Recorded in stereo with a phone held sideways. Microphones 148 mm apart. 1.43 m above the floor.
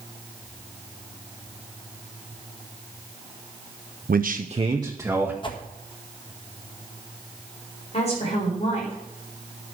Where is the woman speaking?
45° left (ahead or behind), 4.5 m.